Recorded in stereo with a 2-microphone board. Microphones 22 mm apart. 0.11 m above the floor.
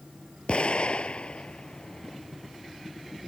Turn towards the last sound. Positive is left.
turn(degrees=55)  # may be behind; listen again after turning